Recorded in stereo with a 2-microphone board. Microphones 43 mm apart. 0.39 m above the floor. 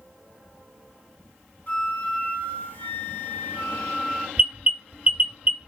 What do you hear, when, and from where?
1.7 s a flute: 40° left (ahead or behind), 1.6 m
4.4 s an alarm: 30° right (ahead or behind), 0.6 m